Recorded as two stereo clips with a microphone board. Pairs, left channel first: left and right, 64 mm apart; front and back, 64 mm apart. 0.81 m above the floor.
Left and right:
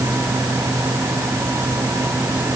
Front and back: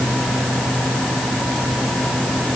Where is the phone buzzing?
I don't hear a phone buzzing.